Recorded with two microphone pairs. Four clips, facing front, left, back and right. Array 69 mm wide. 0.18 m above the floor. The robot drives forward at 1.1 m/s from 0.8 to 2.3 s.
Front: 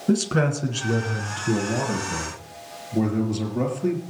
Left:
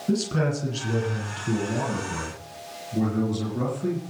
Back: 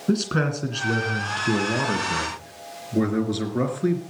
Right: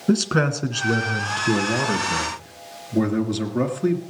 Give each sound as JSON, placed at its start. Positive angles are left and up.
{"t": 0.1, "sound": "a man speaking", "azimuth_deg": -95, "distance_m": 2.0}